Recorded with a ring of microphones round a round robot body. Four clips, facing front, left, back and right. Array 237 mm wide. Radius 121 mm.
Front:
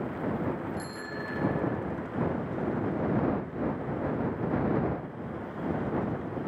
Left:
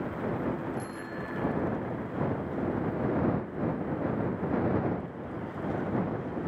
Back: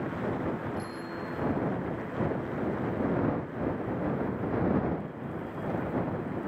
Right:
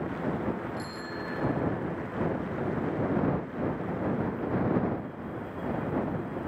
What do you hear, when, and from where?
0.8 s a bicycle bell: 15° right